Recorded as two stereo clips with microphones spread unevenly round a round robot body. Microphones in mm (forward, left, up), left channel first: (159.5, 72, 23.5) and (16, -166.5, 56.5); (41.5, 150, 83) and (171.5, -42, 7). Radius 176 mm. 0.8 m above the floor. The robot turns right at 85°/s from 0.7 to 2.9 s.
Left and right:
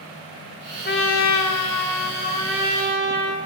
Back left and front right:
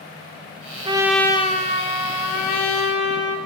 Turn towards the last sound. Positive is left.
turn(degrees=180)